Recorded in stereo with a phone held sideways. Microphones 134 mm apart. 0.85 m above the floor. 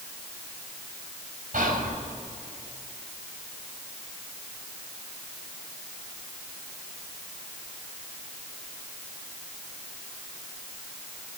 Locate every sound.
1.5 s whispering: 85° right, 4 m